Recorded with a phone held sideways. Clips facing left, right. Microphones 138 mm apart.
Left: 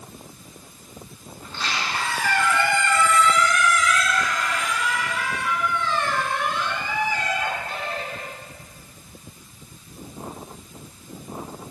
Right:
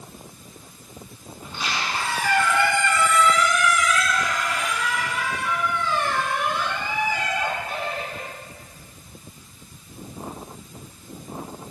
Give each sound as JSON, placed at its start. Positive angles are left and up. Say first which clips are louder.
{"t": 1.4, "sound": "a squeak", "louder": "even", "side_deg": -10, "distance_m": 4.0}